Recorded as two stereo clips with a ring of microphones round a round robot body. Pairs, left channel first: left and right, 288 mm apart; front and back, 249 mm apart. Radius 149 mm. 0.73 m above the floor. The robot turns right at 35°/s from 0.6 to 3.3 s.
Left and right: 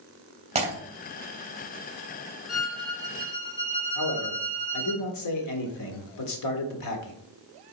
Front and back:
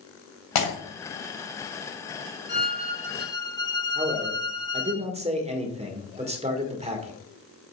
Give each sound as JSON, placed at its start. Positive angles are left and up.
{"t": 0.6, "sound": "breaking glass", "azimuth_deg": -20, "distance_m": 2.5}
{"t": 2.5, "sound": "a violin", "azimuth_deg": 50, "distance_m": 1.3}
{"t": 4.0, "sound": "a man speaking", "azimuth_deg": 115, "distance_m": 1.9}